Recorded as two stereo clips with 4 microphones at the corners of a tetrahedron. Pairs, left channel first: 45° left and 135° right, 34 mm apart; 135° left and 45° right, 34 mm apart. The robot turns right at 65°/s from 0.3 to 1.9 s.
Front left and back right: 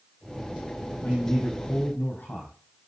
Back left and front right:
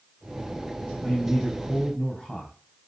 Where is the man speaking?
10° left, 5 m; by 2.5 s 65° left, 5 m.